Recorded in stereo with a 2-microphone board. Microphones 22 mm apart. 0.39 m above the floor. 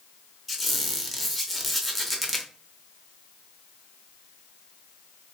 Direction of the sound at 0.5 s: 5° left (ahead or behind).